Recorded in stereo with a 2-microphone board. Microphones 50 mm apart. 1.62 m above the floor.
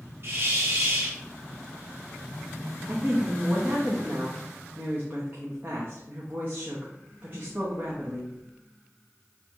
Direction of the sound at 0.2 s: 50° right (ahead or behind).